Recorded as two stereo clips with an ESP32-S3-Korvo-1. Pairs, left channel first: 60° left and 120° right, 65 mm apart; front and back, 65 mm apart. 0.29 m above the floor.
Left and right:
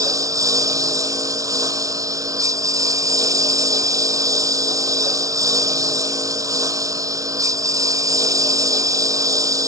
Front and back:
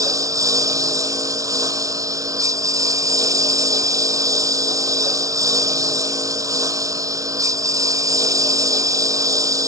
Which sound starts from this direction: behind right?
A lawn mower, at 0.0 s.